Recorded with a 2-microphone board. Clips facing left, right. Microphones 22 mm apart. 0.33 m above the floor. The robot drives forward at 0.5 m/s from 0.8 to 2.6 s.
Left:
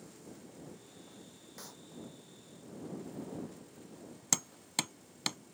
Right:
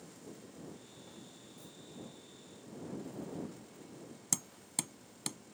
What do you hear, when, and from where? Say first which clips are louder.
1.6 s a clap: left 7 dB; 70° left (ahead or behind)
4.3 s hammering: left 4 dB; 35° left (ahead or behind)